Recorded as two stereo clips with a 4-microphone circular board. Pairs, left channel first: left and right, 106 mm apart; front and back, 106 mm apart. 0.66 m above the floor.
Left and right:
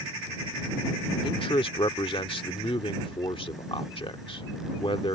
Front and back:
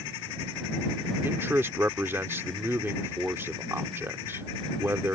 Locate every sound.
1.2 s a man speaking: 115° left